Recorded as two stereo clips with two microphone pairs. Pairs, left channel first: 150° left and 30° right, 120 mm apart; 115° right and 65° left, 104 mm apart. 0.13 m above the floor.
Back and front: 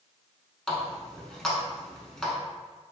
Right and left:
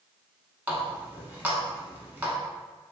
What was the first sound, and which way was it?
A running tap, 80° left.